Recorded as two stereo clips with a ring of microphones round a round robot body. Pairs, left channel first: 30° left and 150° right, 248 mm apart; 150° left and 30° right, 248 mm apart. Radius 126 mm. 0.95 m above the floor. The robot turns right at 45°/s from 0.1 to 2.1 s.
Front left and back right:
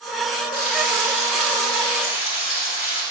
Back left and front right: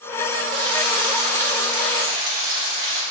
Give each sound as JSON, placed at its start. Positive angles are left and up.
{"t": 0.5, "sound": "frying", "azimuth_deg": -45, "distance_m": 2.0}